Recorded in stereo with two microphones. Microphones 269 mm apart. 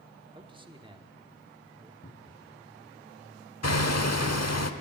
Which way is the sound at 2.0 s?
35° left (ahead or behind).